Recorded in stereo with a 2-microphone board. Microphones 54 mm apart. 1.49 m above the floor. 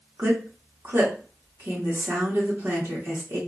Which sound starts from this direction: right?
A woman speaking, at 0.2 s.